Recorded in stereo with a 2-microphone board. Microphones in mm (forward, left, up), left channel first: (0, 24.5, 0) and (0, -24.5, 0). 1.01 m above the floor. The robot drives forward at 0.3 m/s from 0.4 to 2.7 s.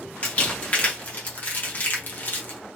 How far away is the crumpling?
About 1.5 m.